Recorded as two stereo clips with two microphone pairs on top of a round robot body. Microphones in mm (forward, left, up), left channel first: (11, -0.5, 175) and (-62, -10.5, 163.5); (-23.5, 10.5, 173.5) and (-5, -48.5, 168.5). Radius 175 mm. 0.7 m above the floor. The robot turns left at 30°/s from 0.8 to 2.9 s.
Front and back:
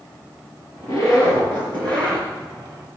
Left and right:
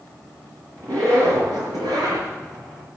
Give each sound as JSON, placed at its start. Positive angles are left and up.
{"t": 0.8, "sound": "a zipper", "azimuth_deg": -35, "distance_m": 4.5}